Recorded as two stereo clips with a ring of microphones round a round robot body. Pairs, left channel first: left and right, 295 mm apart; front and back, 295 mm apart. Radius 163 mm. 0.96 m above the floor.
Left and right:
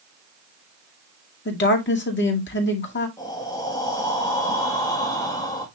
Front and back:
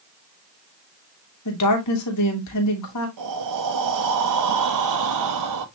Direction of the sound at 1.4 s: 40° left.